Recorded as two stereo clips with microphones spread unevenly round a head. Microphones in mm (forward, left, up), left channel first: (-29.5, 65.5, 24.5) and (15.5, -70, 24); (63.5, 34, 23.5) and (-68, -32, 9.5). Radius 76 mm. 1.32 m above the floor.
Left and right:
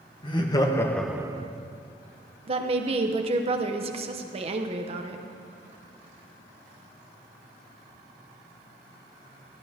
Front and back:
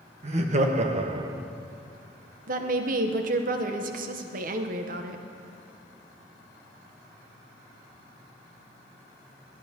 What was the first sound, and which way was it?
Laughter, 165° left.